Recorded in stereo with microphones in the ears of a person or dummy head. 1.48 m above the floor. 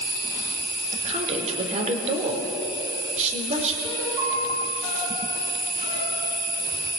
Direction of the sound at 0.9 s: 35° right (ahead or behind).